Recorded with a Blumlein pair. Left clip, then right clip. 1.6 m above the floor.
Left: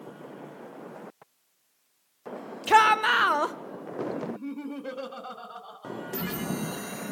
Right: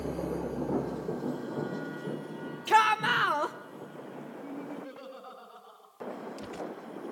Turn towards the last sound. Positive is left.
turn(degrees=30)